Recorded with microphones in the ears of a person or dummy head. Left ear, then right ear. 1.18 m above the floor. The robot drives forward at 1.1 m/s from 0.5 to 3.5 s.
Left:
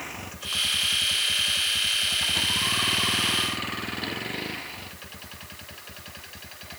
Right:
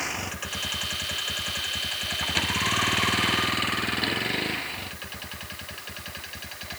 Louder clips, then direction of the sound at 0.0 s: Right 5 dB; 25° right (ahead or behind).